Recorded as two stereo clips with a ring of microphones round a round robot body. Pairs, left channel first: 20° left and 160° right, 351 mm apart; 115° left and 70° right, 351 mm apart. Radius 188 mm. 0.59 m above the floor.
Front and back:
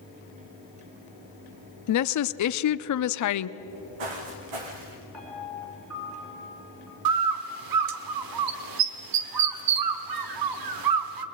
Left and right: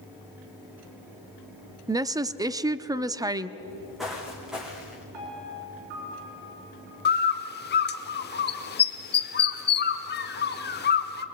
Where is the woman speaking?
10° left, 0.8 m.